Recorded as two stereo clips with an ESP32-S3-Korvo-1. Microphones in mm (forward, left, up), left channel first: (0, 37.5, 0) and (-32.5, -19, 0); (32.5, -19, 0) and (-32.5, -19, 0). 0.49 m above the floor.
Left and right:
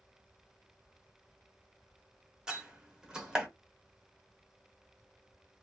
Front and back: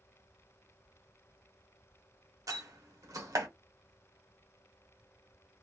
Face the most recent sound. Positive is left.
turn(degrees=160)